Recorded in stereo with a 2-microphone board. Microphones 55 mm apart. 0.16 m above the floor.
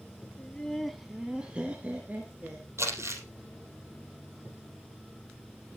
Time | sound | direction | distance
0.4 | laughter | 20° left (ahead or behind) | 1.1 m
2.8 | crumpling | 55° right (ahead or behind) | 4.5 m